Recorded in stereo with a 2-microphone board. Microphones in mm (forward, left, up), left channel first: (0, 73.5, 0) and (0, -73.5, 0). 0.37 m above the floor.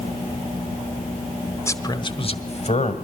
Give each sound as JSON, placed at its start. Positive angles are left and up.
{"t": 1.7, "sound": "a man speaking", "side_deg": 20, "distance_m": 1.2}